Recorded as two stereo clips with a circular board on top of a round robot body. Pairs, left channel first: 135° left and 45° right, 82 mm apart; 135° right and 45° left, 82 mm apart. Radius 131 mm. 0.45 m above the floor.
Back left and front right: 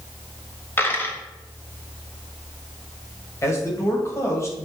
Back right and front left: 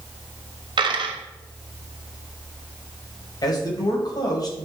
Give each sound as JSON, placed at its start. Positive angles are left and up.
{"t": 0.8, "sound": "a dropped coin", "azimuth_deg": 70, "distance_m": 0.9}
{"t": 3.4, "sound": "a man speaking", "azimuth_deg": -170, "distance_m": 2.5}